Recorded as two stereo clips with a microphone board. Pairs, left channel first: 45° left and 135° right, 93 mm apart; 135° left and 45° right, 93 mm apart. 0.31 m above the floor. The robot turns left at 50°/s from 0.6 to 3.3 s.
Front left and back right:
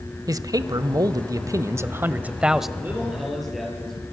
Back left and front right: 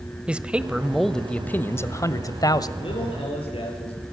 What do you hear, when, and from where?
0.3 s a man speaking: 120° right, 1.2 m; by 2.7 s 135° left, 1.2 m
2.8 s a man speaking: 160° left, 8 m; by 4.0 s 135° left, 8 m